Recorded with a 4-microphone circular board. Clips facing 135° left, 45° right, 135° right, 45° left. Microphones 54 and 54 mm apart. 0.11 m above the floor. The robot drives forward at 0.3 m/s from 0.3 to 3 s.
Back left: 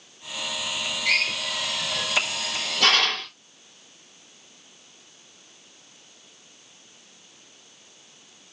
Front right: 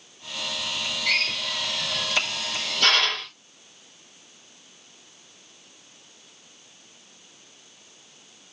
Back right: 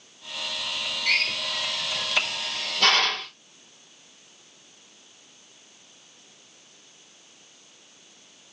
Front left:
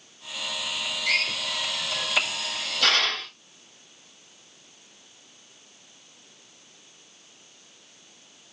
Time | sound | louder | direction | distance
1.1 | a drill | back left 2 dB, back right 1 dB | 175° right | 3 m